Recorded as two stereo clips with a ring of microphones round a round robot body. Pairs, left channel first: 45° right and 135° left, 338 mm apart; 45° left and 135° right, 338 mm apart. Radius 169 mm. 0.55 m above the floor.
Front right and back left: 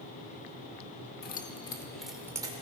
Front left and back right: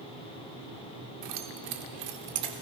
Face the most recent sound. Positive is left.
turn(degrees=-150)